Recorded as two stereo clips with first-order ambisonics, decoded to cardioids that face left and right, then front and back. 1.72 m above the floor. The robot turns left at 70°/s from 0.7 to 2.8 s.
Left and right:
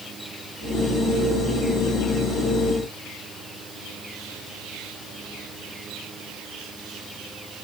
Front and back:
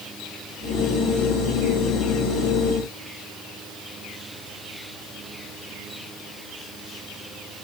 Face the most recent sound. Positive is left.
No sound to turn to.